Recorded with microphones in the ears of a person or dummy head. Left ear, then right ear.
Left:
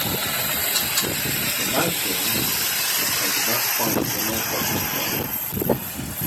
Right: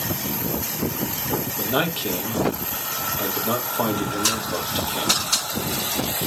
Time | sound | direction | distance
1.6 | a man speaking | 60° right (ahead or behind) | 1.7 m